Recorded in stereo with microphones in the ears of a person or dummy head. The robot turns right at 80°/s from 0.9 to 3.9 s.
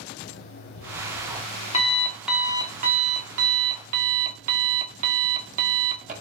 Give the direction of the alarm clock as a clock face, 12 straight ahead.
10 o'clock.